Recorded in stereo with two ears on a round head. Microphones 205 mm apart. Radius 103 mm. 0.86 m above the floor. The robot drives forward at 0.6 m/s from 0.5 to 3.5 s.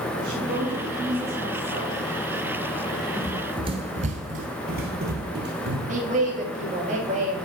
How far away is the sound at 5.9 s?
About 1.7 m.